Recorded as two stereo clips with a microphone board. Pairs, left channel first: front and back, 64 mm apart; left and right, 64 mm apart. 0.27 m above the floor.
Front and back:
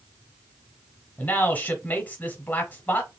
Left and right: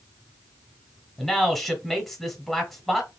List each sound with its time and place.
1.2 s a man speaking: straight ahead, 1.2 m